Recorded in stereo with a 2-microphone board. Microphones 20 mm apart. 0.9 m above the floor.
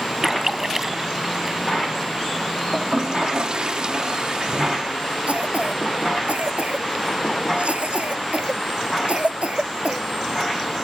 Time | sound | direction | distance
0.2 | a splash | 25° right (ahead or behind) | ?
2.7 | a toilet flushing | 45° right (ahead or behind) | ?
5.3 | a cough | 90° right | ?